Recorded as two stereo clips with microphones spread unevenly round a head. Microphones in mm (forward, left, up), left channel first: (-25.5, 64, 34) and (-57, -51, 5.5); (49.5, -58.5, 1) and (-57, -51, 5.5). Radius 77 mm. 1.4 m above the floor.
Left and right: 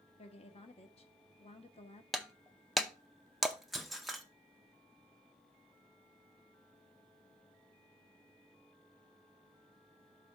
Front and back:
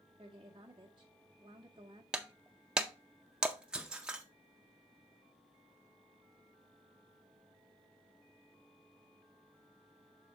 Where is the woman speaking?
115° left, 1.5 m.